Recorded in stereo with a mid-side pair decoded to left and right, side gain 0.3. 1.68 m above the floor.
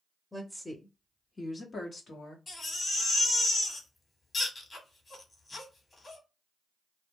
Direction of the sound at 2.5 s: 45° left.